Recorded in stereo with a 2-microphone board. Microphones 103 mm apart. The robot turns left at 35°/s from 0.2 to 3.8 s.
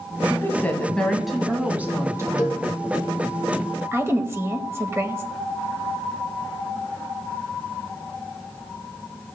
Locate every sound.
0.3 s a woman speaking: 30° left, 1.7 m; by 2.7 s 50° right, 1.7 m
2.4 s a cowbell: 35° left (ahead or behind), 1.3 m; by 2.6 s 40° left (ahead or behind), 1.3 m
3.9 s a woman speaking: 25° right (ahead or behind), 1.3 m